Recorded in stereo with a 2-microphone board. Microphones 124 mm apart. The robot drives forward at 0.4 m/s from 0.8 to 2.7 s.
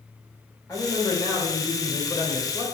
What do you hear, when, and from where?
0.7 s a man speaking: 25° left (ahead or behind), 2.5 m; by 2.6 s 35° left (ahead or behind), 1.8 m